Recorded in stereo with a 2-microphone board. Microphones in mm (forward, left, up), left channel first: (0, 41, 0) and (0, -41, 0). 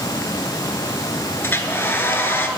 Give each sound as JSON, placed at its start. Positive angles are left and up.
{"t": 1.4, "sound": "a hair dryer", "side_deg": 25, "distance_m": 0.5}